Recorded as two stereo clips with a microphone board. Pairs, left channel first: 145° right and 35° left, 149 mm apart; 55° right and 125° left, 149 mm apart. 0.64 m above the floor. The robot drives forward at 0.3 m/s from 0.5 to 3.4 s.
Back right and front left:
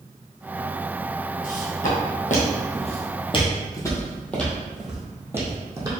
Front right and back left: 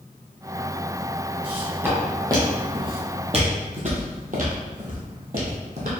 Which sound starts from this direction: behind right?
Footsteps, at 1.4 s.